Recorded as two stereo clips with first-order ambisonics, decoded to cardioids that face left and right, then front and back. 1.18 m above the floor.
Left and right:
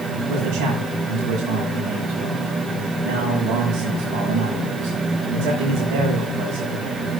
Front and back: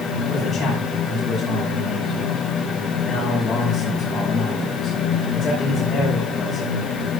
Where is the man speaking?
85° right, 5.5 m.